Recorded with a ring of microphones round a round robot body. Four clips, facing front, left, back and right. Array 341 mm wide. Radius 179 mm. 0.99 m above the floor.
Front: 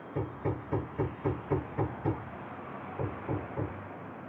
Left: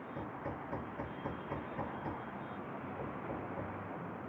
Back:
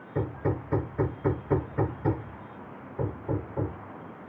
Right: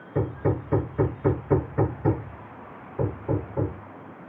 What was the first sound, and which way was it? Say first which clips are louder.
Hammering: right 18 dB, back 5 dB; 105° right.